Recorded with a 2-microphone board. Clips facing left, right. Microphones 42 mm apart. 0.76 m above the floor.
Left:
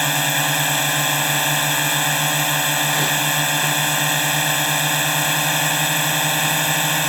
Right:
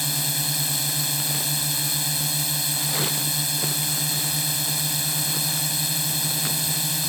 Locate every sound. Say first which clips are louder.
0.0 s a drone: left 10 dB; 55° left (ahead or behind)